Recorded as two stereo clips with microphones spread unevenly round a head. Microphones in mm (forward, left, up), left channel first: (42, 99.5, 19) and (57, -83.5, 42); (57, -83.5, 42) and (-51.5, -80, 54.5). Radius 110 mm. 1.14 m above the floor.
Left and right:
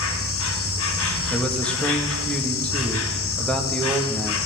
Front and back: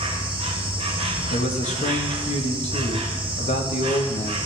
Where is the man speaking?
10° left, 1.5 m.